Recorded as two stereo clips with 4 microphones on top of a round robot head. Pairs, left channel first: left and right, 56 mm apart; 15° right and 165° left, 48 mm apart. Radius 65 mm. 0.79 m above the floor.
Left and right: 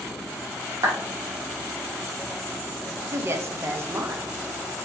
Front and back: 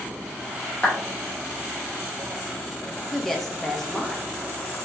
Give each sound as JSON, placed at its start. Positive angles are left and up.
{"t": 0.8, "sound": "a clap", "azimuth_deg": -85, "distance_m": 1.3}
{"t": 3.1, "sound": "a woman speaking", "azimuth_deg": -95, "distance_m": 0.7}